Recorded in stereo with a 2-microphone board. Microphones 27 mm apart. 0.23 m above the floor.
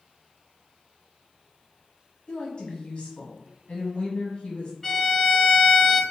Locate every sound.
2.3 s a woman speaking: 40° left (ahead or behind), 1.4 m
4.8 s a violin: 10° left (ahead or behind), 0.9 m